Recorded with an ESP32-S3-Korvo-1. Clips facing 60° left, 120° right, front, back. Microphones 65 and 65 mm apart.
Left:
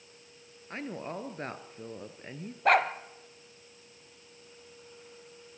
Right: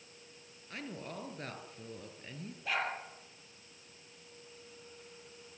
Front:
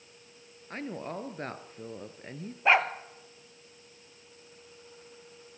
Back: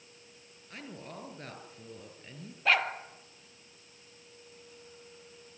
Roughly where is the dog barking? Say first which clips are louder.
Left 12 dB, front 4 dB; ahead left.